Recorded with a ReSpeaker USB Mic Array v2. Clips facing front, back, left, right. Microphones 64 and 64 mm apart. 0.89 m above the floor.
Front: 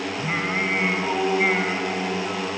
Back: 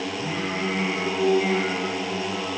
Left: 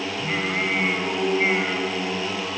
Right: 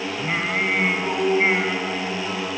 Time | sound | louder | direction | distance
0.2 | singing | front 4 dB, right 2 dB | 20° right | 3 m